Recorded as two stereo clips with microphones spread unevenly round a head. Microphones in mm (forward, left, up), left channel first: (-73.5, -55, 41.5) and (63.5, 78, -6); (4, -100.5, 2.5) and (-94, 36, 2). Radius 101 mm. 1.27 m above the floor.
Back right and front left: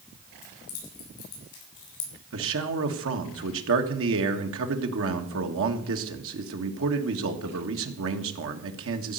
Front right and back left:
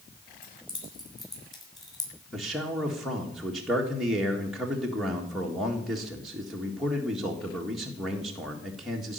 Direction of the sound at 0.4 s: 115° right.